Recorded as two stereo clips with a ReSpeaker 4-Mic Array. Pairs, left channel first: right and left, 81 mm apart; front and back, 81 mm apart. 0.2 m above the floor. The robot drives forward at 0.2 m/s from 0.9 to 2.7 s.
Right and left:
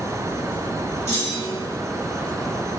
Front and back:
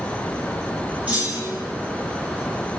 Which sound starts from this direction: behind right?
A clunk, at 1.1 s.